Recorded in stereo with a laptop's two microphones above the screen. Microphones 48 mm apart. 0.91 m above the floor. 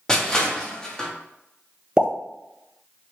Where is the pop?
20° right (ahead or behind), 0.5 m.